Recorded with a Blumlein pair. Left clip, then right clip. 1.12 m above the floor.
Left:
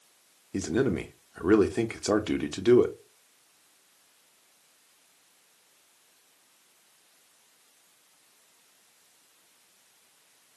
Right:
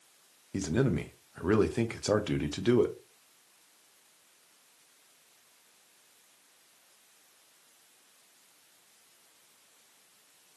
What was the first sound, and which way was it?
A man speaking, 10° left.